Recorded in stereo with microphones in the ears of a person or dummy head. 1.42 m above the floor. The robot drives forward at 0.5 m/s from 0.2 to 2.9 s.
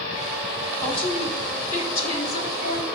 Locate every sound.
0.8 s a woman speaking: 40° left (ahead or behind), 5 m; by 2.9 s 50° left (ahead or behind), 4 m